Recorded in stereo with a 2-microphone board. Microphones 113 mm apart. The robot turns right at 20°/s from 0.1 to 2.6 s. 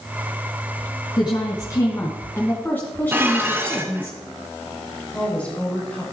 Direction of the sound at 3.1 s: 20° right (ahead or behind).